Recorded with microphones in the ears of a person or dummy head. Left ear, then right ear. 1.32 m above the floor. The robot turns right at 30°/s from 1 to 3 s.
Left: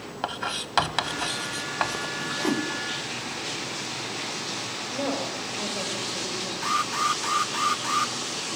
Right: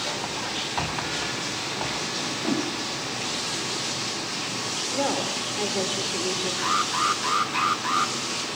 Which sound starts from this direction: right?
A woman speaking, at 4.9 s.